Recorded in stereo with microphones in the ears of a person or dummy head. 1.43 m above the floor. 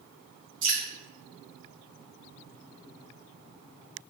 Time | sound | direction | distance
0.6 | dripping | 80° right | 1.6 m